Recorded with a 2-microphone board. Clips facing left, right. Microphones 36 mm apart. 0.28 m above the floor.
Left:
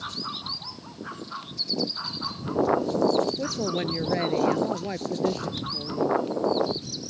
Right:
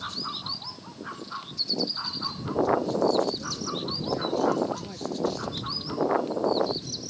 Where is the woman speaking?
70° left (ahead or behind); by 6.3 s 25° left (ahead or behind).